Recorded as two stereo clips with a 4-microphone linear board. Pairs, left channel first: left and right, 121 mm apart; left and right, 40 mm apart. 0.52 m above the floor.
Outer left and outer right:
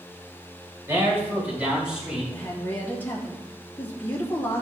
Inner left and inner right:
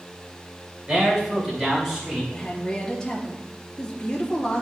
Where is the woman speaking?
15° left (ahead or behind), 2 m.